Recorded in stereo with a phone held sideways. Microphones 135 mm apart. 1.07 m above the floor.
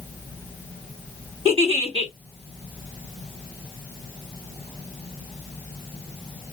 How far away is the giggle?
About 2 m.